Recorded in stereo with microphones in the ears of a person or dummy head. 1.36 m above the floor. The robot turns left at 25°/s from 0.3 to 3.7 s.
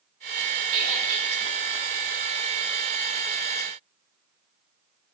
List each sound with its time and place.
0.7 s a squeak: 65° right (ahead or behind), 1.4 m; by 1.3 s 60° right (ahead or behind), 1.4 m